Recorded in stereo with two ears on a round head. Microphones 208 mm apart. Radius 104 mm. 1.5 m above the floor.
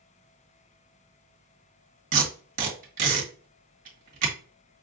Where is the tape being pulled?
40° right (ahead or behind), 1.6 m.